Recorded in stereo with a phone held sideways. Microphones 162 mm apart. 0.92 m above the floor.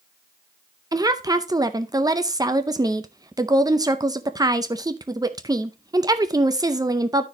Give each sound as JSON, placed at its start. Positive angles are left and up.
{"t": 0.9, "sound": "a woman speaking", "side_deg": -25, "distance_m": 0.5}